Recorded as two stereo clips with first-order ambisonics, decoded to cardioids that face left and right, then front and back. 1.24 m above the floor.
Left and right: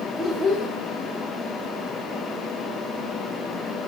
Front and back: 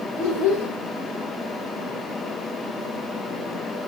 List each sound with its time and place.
0.2 s a child speaking: 25° left, 3.5 m